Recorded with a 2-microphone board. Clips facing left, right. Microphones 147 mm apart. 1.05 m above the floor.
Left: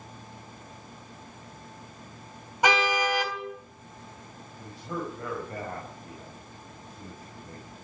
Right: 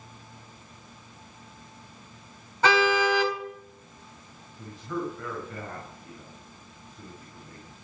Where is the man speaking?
35° left (ahead or behind), 6 m.